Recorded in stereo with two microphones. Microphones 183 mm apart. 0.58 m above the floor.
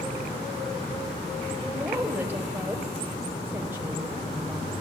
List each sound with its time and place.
1.6 s a woman speaking: 10° right (ahead or behind), 3 m